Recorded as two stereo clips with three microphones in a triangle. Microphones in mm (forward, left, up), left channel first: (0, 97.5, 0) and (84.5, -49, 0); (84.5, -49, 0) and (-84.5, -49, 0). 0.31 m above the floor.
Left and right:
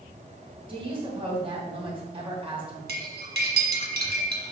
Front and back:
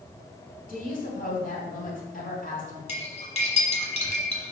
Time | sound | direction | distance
0.7 | a woman speaking | 10° right | 2.5 m
2.9 | cutlery clinking | 45° right | 1.9 m